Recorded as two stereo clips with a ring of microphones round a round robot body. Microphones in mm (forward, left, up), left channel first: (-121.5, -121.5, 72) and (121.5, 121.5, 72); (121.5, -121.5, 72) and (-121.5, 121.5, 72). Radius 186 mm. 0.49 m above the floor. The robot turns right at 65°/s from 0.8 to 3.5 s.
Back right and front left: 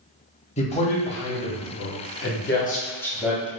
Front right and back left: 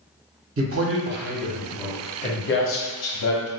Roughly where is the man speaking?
Behind.